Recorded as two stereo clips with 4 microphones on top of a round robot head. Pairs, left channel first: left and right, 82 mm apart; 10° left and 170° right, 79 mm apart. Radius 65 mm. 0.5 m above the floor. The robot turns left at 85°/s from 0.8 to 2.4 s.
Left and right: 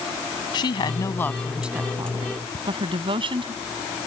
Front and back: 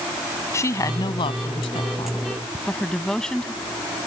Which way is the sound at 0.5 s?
60° left.